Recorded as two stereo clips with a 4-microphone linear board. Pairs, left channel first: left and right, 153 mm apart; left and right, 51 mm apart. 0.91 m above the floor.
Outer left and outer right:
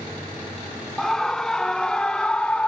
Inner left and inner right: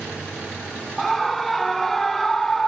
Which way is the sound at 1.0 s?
5° left (ahead or behind).